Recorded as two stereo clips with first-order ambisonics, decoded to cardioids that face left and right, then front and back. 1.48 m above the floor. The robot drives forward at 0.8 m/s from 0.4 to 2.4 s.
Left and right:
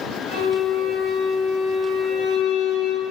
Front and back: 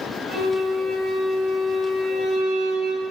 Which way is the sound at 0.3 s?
90° left.